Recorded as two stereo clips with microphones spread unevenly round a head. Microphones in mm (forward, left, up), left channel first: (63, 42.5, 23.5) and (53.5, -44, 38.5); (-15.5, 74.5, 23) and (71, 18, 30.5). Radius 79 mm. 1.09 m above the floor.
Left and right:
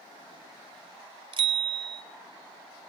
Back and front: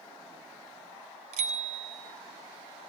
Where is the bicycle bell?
80° right, 3.5 m.